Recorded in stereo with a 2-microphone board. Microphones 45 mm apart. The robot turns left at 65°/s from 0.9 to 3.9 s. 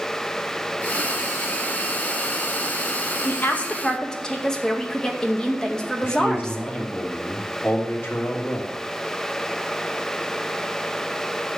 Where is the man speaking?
50° left (ahead or behind), 3 m.